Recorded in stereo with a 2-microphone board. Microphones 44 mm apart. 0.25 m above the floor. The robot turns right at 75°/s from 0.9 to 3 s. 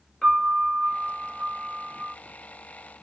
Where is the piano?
10° left, 1.1 m; by 2.1 s 100° left, 1.1 m.